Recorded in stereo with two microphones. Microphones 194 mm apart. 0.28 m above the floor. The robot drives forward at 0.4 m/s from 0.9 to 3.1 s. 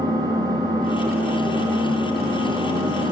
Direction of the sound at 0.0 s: 20° right (ahead or behind).